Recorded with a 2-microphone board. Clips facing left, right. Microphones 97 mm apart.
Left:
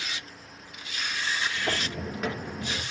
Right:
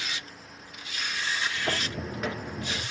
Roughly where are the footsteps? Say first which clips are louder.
Even; centre.